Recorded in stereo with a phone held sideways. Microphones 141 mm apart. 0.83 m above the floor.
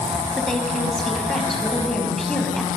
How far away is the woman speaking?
About 5.5 m.